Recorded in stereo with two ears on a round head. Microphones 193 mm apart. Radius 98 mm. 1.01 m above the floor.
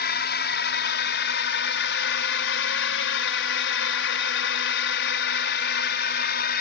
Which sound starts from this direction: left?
A drone, at 0.0 s.